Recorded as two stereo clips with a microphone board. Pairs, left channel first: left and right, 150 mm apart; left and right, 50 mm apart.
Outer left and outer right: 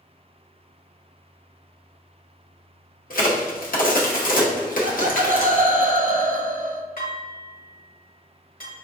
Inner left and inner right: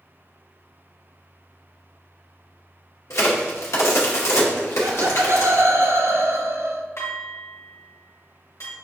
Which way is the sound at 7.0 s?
70° left (ahead or behind).